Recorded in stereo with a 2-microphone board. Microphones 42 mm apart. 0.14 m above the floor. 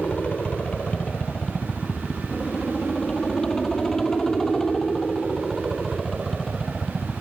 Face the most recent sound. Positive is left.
turn(degrees=0)  # may be behind; listen again after turning